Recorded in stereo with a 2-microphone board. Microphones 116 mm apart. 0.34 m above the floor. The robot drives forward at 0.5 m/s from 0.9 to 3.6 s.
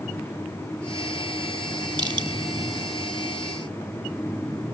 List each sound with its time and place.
2.0 s crushing: 40° right (ahead or behind), 2 m